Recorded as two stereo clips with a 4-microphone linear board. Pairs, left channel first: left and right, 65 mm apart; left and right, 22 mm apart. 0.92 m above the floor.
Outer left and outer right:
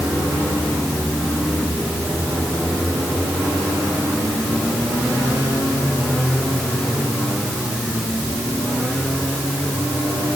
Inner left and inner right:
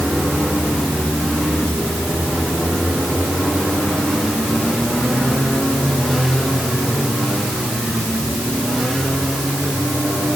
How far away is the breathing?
I don't hear breathing.